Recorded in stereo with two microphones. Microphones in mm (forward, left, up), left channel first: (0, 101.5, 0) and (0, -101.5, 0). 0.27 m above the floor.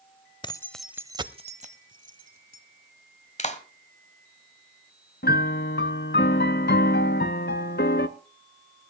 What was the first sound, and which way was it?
Keys jangling, 25° left (ahead or behind).